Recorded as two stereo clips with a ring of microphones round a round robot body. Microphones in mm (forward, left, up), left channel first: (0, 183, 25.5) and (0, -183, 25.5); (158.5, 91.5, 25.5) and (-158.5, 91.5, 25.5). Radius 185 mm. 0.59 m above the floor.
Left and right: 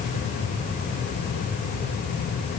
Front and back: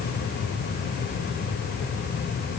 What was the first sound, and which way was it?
Only background noise.